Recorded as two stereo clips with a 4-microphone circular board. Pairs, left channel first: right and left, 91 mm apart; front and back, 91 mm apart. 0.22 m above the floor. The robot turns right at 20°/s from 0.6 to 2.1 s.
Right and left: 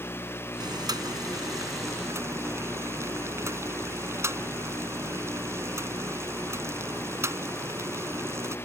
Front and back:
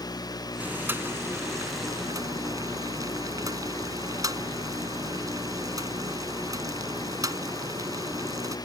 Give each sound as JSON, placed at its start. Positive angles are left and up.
{"t": 0.6, "sound": "boiling", "azimuth_deg": 110}